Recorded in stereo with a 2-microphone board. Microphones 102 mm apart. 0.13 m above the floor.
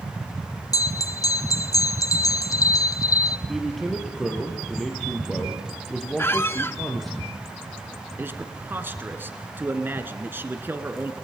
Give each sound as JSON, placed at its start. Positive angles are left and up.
{"t": 0.7, "sound": "a bell", "side_deg": 40, "distance_m": 0.5}
{"t": 3.5, "sound": "a man speaking", "side_deg": 0, "distance_m": 3.0}
{"t": 6.2, "sound": "a squeak", "side_deg": 25, "distance_m": 0.5}
{"t": 8.2, "sound": "a man speaking", "side_deg": -20, "distance_m": 1.5}